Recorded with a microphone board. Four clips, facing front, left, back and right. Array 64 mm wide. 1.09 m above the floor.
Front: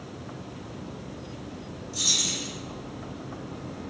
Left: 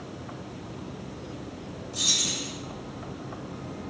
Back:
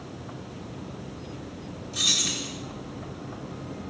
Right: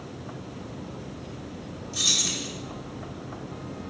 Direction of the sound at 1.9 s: 155° right.